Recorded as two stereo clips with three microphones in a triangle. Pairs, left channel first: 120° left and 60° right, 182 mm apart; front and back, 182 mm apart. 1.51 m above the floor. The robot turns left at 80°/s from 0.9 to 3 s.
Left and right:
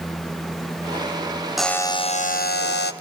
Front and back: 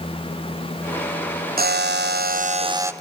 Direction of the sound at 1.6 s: 150° right.